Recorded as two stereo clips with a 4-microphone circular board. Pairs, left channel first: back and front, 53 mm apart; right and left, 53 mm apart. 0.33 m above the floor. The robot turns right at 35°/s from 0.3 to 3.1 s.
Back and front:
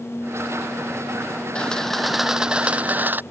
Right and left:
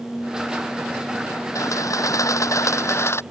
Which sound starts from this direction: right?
A camera shutter, at 1.6 s.